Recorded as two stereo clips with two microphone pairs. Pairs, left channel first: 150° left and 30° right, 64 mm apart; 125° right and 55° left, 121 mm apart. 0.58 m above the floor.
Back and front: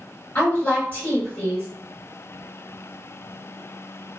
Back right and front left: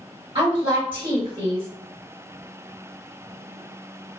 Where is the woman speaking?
90° left, 2.0 m.